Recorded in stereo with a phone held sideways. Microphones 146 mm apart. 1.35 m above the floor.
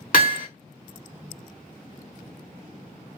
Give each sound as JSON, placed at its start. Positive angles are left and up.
{"t": 0.1, "sound": "hammering", "side_deg": 70, "distance_m": 2.0}